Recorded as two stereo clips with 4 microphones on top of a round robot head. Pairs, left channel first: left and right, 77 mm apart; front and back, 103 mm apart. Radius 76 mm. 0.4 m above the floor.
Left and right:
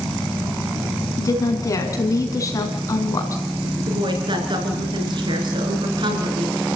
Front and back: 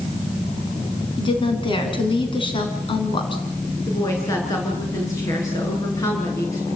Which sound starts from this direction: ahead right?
A woman speaking, at 3.9 s.